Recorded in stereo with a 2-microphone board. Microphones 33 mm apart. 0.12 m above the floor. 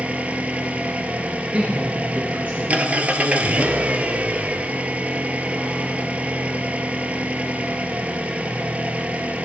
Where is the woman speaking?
40° right (ahead or behind), 2 m.